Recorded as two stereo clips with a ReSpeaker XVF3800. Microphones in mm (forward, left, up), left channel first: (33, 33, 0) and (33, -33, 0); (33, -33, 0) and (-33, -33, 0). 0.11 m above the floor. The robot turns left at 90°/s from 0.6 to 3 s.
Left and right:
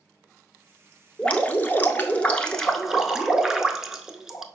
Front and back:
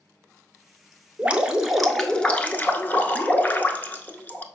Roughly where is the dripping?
Behind left.